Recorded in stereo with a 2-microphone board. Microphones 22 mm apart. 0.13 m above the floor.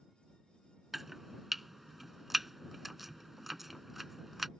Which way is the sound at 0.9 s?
10° right (ahead or behind).